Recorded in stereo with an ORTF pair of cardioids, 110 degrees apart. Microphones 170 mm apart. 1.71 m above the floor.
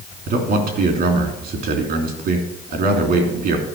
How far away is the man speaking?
About 3 m.